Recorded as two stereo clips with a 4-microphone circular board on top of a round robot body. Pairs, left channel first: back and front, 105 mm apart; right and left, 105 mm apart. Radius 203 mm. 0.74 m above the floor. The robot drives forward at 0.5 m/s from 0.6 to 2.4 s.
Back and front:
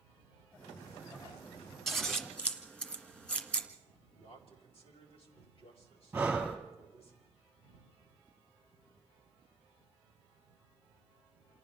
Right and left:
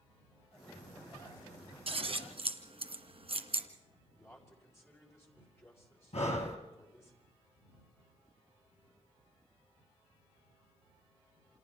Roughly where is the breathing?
Right.